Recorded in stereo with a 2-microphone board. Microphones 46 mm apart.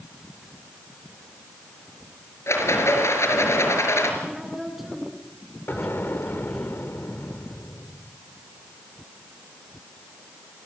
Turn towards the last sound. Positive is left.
turn(degrees=55)  # may be behind; listen again after turning